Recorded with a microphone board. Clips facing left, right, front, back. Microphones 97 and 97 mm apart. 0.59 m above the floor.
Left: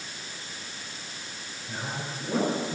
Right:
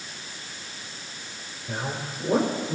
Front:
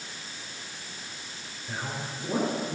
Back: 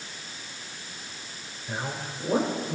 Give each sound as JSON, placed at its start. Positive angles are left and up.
{"t": 1.7, "sound": "a man speaking", "azimuth_deg": -110, "distance_m": 3.0}